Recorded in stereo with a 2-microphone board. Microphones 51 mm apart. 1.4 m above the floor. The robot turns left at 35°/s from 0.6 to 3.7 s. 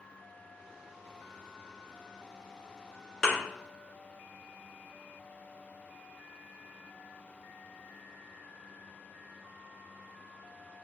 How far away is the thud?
About 2.0 m.